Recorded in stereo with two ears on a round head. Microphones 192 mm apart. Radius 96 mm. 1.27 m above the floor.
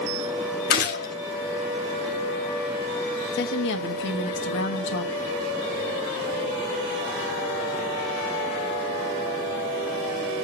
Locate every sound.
0.7 s a gunshot: 45° left (ahead or behind), 1.6 m
3.3 s a woman speaking: 55° left (ahead or behind), 1.4 m